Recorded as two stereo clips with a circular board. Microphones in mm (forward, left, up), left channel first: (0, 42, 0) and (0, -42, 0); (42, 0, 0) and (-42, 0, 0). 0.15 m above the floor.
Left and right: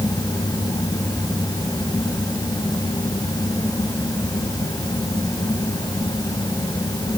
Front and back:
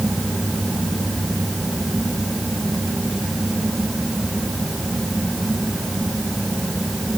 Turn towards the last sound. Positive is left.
No sound to turn to.